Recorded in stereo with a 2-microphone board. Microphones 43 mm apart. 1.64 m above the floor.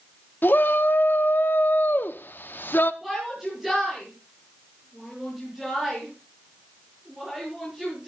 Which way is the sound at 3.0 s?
5° right (ahead or behind).